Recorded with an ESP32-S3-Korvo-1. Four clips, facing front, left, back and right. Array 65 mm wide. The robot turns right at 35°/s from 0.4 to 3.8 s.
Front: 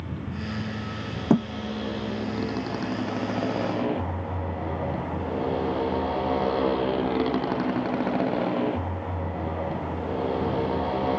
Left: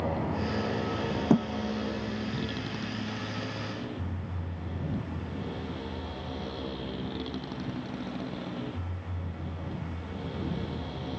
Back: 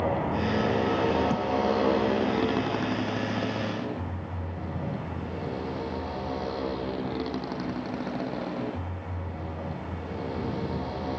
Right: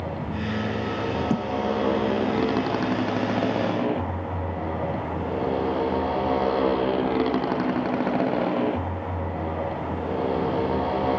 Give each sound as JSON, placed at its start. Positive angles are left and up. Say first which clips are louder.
{"t": 0.0, "sound": "a motorcycle", "louder": "right 1 dB, back 8 dB", "azimuth_deg": 175}
{"t": 1.3, "sound": "a thud", "louder": "left 1 dB, front 6 dB", "azimuth_deg": 20}